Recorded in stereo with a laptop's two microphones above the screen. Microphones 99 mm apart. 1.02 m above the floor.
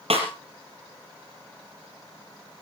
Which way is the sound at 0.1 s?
75° right (ahead or behind).